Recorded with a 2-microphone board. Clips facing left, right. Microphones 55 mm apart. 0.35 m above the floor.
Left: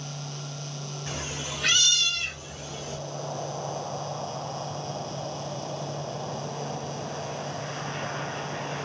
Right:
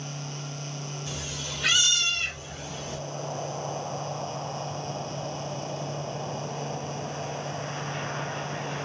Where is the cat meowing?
45° left (ahead or behind), 0.7 m; by 3.0 s 55° right (ahead or behind), 1.4 m.